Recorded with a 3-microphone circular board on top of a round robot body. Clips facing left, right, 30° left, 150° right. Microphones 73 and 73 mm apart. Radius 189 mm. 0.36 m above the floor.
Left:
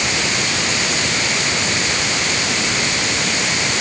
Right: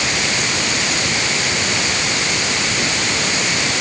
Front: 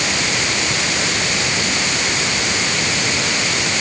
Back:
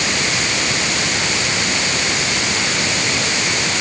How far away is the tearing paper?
No tearing paper in this recording.